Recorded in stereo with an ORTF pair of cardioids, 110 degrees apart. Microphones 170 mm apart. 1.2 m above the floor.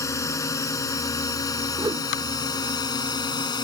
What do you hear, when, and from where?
0.0 s a drone: 20° left; by 3.6 s 25° left
1.8 s a whoosh: 20° right